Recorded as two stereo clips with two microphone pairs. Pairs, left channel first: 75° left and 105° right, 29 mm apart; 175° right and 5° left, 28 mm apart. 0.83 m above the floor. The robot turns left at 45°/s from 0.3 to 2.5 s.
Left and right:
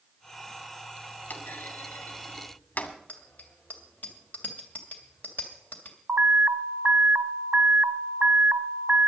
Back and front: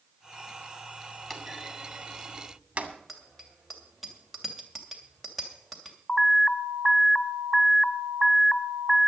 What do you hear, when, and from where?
1.3 s a clunk: 110° left, 2 m; by 2.9 s 55° left, 2 m
3.1 s a bicycle bell: 100° left, 2.5 m
6.1 s an alarm: 85° right, 0.8 m